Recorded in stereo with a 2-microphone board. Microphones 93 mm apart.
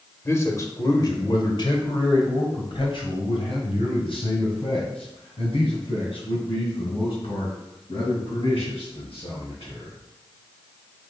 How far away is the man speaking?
About 1.3 m.